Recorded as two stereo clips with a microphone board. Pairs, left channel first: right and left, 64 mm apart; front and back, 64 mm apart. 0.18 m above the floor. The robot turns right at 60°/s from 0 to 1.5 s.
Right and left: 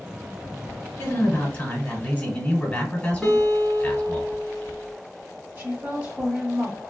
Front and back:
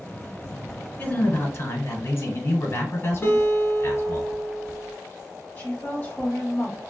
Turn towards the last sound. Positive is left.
turn(degrees=45)